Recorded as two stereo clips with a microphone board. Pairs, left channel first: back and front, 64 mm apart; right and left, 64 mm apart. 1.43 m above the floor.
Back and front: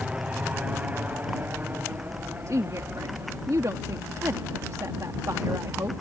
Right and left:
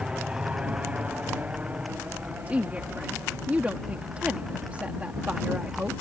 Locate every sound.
0.0 s an aircraft: 40° left
2.5 s a woman speaking: 25° left